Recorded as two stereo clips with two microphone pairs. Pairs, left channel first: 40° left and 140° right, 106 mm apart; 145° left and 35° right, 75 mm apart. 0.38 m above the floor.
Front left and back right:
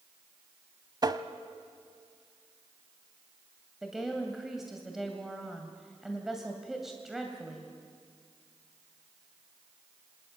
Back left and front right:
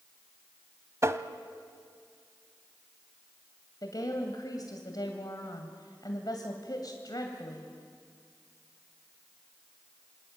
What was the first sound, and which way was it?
Tapping, 85° right.